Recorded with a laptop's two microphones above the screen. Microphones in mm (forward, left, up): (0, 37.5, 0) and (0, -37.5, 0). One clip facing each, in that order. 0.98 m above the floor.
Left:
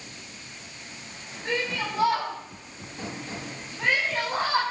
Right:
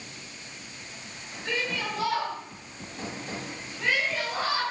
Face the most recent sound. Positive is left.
turn(degrees=40)  # may be behind; listen again after turning